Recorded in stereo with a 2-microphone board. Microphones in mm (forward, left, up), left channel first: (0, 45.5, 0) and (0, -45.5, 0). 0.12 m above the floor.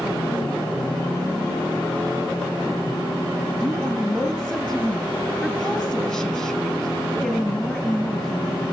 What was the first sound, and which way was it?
A woman speaking, 15° left (ahead or behind).